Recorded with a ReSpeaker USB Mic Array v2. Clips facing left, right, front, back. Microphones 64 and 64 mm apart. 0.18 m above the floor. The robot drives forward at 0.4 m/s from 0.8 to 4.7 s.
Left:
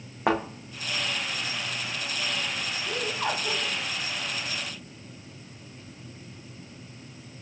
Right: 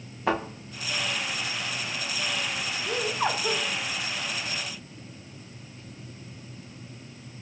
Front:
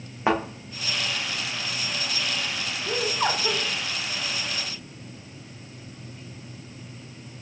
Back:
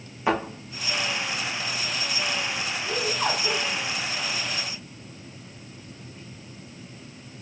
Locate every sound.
0.3 s a thud: 60° left, 2.5 m
2.9 s laughter: 50° right, 1.8 m; by 3.6 s 65° right, 1.7 m